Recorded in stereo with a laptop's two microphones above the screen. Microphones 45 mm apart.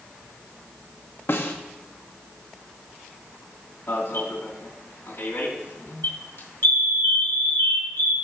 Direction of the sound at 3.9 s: 65° left (ahead or behind).